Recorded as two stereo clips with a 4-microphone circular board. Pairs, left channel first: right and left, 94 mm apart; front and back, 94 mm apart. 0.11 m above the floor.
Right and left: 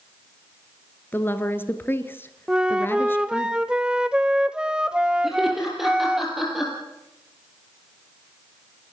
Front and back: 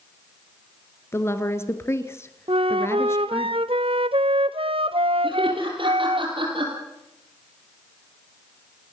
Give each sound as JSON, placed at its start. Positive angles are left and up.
{"t": 1.1, "sound": "a woman speaking", "azimuth_deg": -40, "distance_m": 1.4}
{"t": 2.5, "sound": "a flute", "azimuth_deg": 170, "distance_m": 0.8}
{"t": 5.2, "sound": "laughter", "azimuth_deg": 180, "distance_m": 3.5}